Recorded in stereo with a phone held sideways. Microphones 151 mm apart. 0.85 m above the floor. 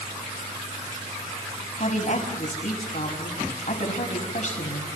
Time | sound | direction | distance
1.8 | a woman speaking | 55° left (ahead or behind) | 6.5 m